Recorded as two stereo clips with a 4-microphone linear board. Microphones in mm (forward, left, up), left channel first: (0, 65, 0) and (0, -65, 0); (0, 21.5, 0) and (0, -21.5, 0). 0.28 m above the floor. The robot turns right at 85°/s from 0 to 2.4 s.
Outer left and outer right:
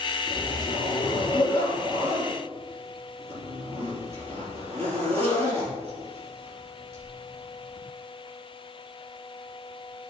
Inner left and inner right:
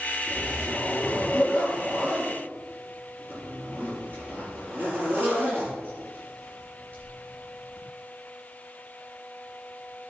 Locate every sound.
0.3 s a zipper: 45° left (ahead or behind), 4.5 m; by 7.8 s 50° right (ahead or behind), 4.5 m